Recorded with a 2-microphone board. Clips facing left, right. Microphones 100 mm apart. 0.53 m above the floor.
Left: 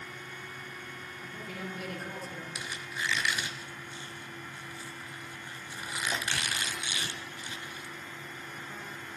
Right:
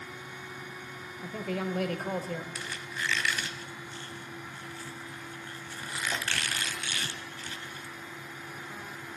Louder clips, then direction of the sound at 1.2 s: Right 9 dB; 70° right (ahead or behind).